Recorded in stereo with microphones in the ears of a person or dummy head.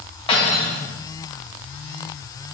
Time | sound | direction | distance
0.3 | cutlery clinking | 35° left (ahead or behind) | 3.5 m